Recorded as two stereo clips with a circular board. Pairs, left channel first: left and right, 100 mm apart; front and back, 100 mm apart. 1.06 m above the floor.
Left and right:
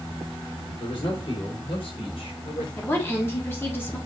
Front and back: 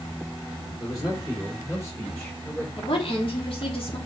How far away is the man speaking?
About 4 m.